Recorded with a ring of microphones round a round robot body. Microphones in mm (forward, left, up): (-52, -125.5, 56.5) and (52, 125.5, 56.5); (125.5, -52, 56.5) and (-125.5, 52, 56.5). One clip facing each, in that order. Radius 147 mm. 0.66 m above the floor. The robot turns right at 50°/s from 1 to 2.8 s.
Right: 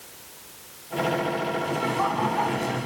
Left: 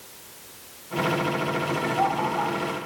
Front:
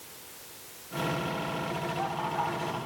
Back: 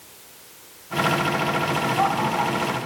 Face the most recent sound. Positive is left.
turn(degrees=-145)